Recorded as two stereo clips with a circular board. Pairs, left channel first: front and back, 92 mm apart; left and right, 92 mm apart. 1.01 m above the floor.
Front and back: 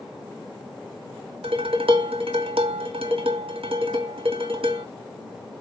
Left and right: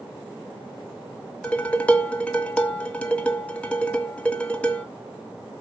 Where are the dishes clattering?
165° left, 1.3 m.